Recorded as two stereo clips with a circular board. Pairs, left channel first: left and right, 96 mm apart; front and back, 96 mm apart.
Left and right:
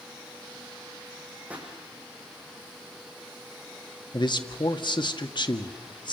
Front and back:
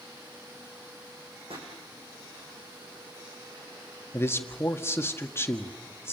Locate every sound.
1.5 s a pop: 165° right, 7 m
4.1 s a man speaking: 60° left, 1.8 m